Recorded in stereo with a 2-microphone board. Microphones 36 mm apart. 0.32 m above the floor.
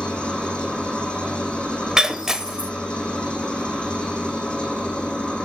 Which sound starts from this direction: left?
An engine running, at 0.0 s.